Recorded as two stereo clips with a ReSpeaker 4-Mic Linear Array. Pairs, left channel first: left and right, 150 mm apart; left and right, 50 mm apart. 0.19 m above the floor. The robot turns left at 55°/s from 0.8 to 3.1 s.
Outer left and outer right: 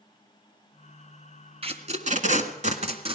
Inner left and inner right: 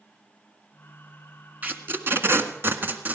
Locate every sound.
1.6 s tape being pulled: 40° right (ahead or behind), 1.6 m